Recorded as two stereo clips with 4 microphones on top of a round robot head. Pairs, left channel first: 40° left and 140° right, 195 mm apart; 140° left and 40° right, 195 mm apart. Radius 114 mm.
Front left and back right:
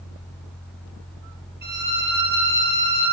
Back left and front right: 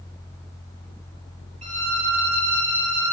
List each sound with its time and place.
1.6 s a violin: 100° right, 5.5 m